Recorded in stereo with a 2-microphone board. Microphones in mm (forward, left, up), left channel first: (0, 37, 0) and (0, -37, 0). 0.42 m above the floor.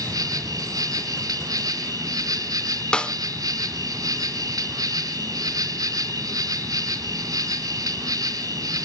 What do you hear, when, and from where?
0.0 s an insect: 55° right (ahead or behind), 1.9 m
2.9 s a snare drum: 15° left (ahead or behind), 0.7 m